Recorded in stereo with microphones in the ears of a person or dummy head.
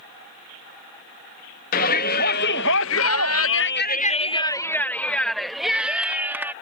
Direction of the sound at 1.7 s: 50° left (ahead or behind).